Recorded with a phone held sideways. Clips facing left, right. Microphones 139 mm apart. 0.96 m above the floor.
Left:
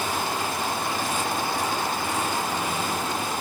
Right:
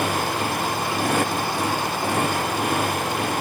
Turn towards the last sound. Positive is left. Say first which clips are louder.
# right 4 dB
turn(degrees=-75)  # may be behind; listen again after turning